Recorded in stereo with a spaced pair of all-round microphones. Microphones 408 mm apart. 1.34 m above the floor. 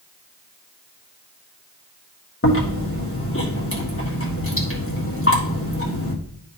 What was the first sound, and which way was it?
Chewing, 30° left (ahead or behind).